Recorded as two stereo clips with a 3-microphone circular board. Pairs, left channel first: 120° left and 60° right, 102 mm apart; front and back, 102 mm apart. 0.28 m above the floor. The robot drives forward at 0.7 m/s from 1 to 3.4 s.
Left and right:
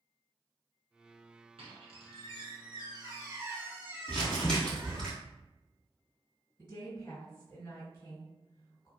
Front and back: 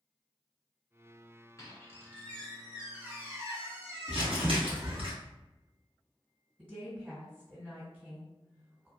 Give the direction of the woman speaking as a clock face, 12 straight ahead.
8 o'clock.